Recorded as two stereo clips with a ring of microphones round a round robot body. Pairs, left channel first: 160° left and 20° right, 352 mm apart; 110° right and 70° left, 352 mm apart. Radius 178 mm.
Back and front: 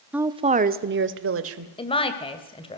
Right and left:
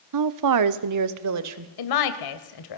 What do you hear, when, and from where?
0.1 s a woman speaking: 65° left, 0.9 m; by 1.7 s 25° left, 2 m
1.8 s a woman speaking: 130° right, 2.5 m